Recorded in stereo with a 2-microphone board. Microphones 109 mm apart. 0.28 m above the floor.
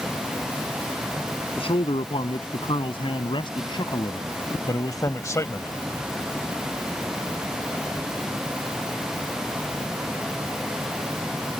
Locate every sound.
1.6 s a man speaking: 60° left (ahead or behind); by 5.7 s 25° left (ahead or behind)